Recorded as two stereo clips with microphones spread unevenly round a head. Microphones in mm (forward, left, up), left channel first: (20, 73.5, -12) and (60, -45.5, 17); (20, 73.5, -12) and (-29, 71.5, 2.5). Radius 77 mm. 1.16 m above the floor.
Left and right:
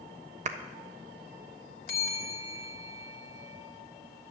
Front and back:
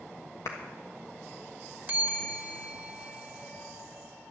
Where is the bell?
150° left, 1.8 m.